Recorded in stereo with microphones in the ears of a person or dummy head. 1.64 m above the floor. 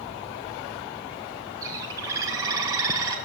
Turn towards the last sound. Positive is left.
turn(degrees=-15)  # may be behind; listen again after turning